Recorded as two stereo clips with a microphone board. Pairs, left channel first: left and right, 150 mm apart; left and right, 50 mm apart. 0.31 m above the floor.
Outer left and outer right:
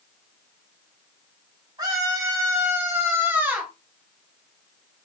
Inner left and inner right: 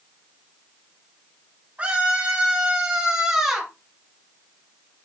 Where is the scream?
35° right (ahead or behind), 3 m; by 3.7 s 10° right (ahead or behind), 2.5 m.